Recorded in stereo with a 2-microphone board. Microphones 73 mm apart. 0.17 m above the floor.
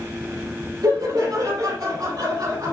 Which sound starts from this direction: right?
Laughter, at 0.8 s.